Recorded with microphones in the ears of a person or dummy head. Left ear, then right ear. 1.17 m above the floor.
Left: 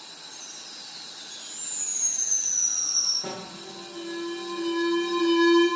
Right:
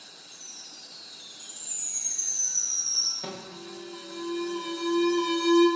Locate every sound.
0.3 s a chime: 20° right (ahead or behind), 0.6 m
3.2 s an alarm: 90° right, 0.6 m